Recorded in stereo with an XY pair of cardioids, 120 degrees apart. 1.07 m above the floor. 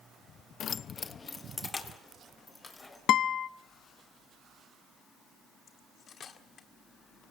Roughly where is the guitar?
Ahead left.